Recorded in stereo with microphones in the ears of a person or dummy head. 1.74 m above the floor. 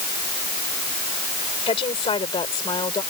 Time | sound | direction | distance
1.7 | a woman speaking | 30° left (ahead or behind) | ?